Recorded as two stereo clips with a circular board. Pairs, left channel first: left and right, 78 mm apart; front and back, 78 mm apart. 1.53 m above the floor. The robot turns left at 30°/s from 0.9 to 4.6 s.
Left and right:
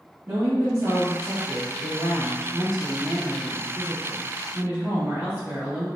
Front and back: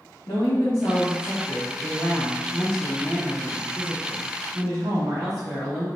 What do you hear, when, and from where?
0.3 s a woman speaking: 25° right, 2.5 m; by 5.9 s 135° right, 2.5 m